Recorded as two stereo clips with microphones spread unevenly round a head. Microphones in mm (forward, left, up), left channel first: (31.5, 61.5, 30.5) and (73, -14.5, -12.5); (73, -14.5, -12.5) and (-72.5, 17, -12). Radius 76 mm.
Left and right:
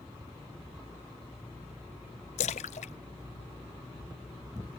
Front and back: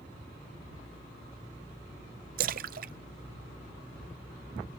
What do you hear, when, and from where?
2.4 s a splash: 135° left